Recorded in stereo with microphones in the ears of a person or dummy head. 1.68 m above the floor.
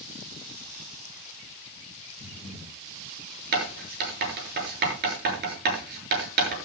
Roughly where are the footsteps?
I don't hear footsteps.